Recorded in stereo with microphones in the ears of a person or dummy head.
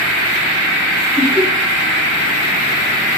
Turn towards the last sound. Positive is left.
turn(degrees=10)  # may be behind; listen again after turning